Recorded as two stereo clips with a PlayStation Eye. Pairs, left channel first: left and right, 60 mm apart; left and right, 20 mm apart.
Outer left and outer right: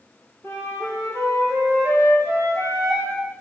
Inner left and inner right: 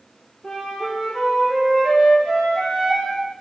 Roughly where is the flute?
Left.